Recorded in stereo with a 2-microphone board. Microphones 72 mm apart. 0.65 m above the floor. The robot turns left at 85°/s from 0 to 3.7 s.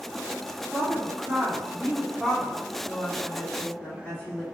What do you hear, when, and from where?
0.7 s a woman speaking: 35° right (ahead or behind), 1.6 m; by 4.4 s 40° left (ahead or behind), 1.6 m